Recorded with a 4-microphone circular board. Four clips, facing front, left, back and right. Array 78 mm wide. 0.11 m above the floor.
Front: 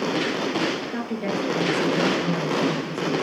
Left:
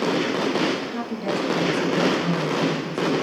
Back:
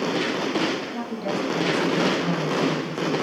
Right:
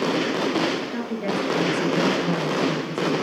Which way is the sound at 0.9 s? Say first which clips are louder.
Even, front 1 dB; 25° right.